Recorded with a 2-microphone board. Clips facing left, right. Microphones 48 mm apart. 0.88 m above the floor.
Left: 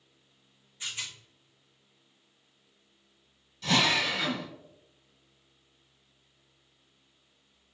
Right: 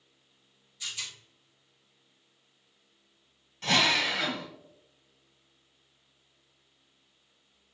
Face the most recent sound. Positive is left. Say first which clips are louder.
# even
turn(degrees=-50)  # may be behind; listen again after turning